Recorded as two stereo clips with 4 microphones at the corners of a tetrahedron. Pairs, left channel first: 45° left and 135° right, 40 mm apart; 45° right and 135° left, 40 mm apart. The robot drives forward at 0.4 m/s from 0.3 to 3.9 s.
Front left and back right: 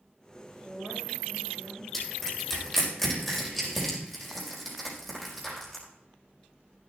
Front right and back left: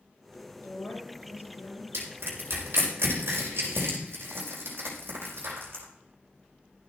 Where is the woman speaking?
55° right, 4 m; by 1.8 s 60° right, 3.5 m.